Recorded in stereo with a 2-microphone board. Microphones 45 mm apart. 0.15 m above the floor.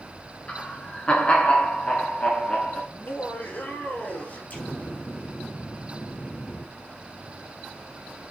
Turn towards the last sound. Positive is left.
turn(degrees=40)  # may be behind; listen again after turning